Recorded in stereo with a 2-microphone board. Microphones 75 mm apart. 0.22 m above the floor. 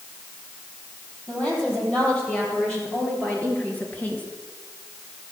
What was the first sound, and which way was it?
A woman speaking, 20° left (ahead or behind).